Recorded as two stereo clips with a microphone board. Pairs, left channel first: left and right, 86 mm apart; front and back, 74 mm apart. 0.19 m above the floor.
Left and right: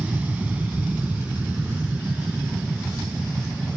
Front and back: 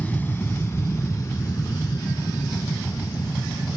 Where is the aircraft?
40° right; by 3.8 s 15° right.